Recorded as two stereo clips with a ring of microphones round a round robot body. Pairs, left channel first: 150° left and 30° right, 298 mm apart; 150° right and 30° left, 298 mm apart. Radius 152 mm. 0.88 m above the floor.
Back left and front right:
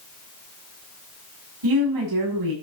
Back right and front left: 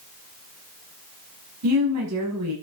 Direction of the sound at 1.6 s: 10° right.